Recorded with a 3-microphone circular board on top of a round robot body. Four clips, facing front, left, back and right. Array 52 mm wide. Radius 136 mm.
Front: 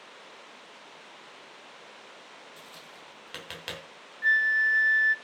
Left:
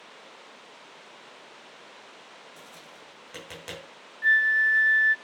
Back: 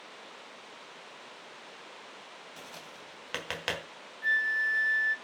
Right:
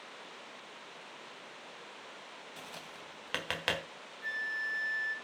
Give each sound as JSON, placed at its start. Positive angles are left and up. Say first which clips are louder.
{"t": 2.6, "sound": "tapping", "louder": "even, back 1 dB", "azimuth_deg": -115, "distance_m": 3.0}
{"t": 4.2, "sound": "a flute", "louder": "left 15 dB, front 5 dB", "azimuth_deg": 65, "distance_m": 1.0}